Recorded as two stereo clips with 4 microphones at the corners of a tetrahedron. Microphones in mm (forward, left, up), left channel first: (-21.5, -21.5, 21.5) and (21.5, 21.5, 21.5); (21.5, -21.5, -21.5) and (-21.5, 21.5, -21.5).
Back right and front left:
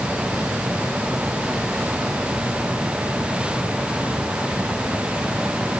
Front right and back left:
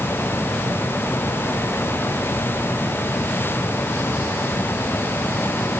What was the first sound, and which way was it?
Only background noise.